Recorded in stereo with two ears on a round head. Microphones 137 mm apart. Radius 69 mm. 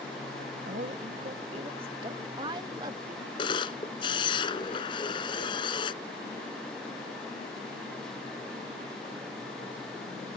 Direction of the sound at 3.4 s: 30° left (ahead or behind).